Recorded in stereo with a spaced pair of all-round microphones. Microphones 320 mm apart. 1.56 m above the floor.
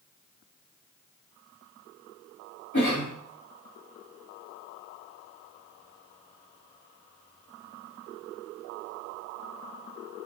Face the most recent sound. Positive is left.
turn(degrees=70)  # may be behind; listen again after turning